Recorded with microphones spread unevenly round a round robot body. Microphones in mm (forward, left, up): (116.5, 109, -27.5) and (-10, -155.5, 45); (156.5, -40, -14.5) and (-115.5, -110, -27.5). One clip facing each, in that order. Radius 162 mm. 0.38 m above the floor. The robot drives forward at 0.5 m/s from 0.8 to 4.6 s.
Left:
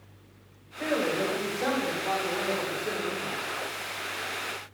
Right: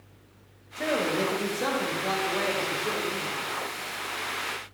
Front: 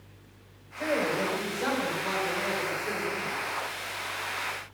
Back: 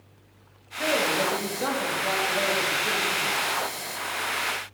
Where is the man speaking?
155° right, 1.6 m; by 3.4 s 170° right, 2.5 m.